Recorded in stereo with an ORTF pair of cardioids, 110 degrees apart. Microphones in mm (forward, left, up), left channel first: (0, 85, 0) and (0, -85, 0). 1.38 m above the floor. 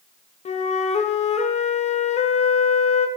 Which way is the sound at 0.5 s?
45° left.